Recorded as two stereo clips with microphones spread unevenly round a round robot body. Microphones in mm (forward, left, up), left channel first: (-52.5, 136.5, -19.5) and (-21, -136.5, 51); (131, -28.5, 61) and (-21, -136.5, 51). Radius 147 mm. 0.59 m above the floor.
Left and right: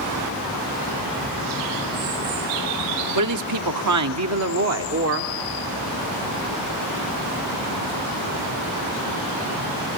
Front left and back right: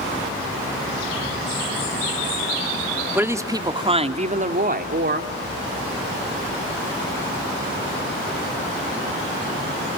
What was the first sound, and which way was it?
A woman speaking, 70° right.